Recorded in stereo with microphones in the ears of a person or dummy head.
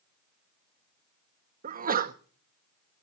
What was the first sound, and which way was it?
A sneeze, 40° right (ahead or behind).